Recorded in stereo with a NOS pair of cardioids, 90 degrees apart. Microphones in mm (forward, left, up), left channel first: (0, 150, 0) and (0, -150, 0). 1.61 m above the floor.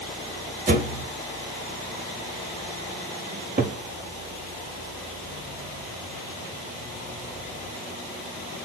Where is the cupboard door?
25° right, 1.7 m.